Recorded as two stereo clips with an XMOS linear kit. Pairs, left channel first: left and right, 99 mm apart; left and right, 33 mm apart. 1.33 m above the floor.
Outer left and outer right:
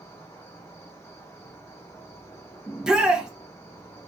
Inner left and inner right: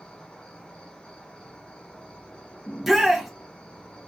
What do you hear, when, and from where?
0.0 s an insect: 25° left (ahead or behind), 1.4 m
2.7 s a shout: 5° right (ahead or behind), 1.3 m